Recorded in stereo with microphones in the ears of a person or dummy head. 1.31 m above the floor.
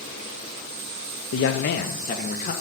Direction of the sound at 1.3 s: 65° left (ahead or behind).